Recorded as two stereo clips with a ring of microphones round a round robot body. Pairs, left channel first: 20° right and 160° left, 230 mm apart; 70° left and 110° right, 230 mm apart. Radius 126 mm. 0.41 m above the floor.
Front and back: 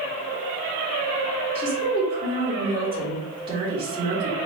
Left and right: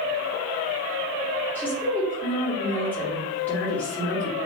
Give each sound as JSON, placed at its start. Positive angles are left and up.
{"t": 1.6, "sound": "a woman speaking", "azimuth_deg": 140, "distance_m": 1.4}